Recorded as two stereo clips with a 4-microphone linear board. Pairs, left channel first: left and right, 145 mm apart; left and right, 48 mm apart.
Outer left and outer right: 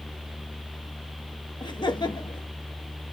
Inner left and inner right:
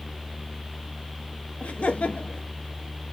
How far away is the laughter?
About 1.0 m.